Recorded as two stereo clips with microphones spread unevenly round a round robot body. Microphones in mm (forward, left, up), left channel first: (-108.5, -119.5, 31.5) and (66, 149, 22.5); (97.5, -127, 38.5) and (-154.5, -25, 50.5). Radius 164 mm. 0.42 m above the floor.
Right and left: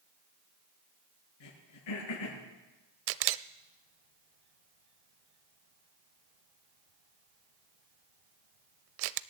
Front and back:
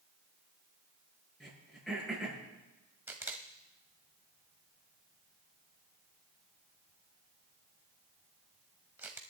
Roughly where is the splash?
I don't hear a splash.